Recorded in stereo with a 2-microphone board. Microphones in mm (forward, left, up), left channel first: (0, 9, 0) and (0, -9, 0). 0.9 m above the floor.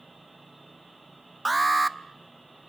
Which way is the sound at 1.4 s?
5° left (ahead or behind).